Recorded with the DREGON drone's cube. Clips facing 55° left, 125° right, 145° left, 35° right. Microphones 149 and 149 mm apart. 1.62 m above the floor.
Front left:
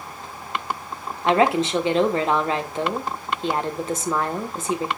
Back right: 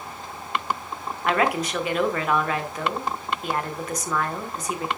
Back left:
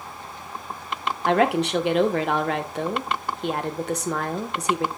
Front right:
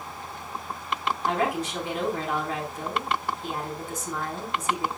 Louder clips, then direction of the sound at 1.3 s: Front left 5 dB, back left 8 dB; 120° left.